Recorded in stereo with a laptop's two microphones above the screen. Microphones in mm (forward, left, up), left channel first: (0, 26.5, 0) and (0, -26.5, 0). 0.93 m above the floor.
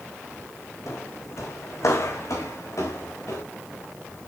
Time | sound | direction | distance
0.9 | footsteps | 65° left (ahead or behind) | 2.5 m